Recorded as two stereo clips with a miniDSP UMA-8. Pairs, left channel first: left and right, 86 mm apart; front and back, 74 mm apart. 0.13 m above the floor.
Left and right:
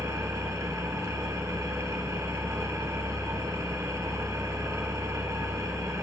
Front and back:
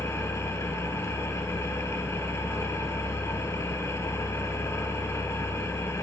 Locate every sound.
0.0 s an engine running: 45° right, 1.0 m